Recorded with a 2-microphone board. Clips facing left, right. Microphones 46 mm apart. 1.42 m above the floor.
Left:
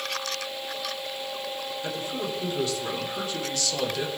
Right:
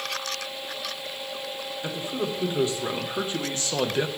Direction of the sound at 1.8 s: 25° right (ahead or behind).